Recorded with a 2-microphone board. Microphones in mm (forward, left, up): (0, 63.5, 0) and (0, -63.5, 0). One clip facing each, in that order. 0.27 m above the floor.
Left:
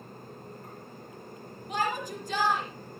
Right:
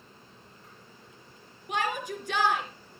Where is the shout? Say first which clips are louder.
Even; 65° right (ahead or behind), 3.5 m.